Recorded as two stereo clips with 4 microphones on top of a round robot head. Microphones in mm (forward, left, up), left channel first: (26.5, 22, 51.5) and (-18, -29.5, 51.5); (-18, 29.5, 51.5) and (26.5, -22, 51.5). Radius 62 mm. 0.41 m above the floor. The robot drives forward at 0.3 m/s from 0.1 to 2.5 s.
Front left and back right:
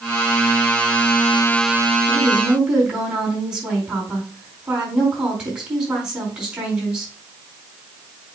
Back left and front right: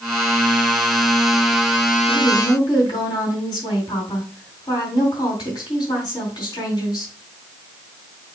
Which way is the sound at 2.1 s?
150° left.